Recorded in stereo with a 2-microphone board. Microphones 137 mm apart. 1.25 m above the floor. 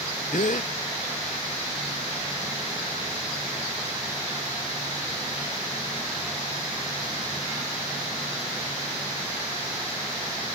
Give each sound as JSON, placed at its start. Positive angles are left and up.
{"t": 0.3, "sound": "a gasp", "side_deg": 70}